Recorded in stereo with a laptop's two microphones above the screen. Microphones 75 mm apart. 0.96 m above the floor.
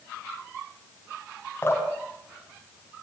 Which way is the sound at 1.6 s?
30° left (ahead or behind).